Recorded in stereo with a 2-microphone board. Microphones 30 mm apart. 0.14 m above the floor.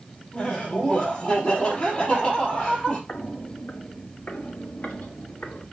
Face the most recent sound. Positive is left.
turn(degrees=65)  # may be behind; listen again after turning